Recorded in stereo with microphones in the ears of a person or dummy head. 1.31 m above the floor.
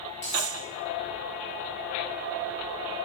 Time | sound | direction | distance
0.2 | cutlery clinking | 25° left (ahead or behind) | 0.6 m